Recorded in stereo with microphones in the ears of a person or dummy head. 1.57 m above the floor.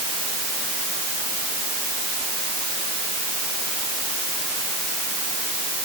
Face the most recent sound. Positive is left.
No sound to turn to.